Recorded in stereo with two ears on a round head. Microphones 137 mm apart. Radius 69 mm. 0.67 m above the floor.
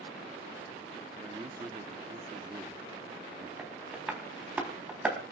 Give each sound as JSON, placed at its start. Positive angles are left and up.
{"t": 1.2, "sound": "a man speaking", "side_deg": -25, "distance_m": 1.0}
{"t": 3.6, "sound": "tapping", "side_deg": -10, "distance_m": 4.0}